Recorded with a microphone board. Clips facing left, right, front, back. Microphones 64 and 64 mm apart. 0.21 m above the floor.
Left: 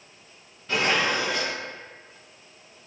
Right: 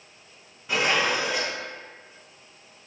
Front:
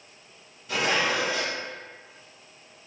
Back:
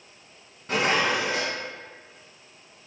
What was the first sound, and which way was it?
Dishes clattering, 165° right.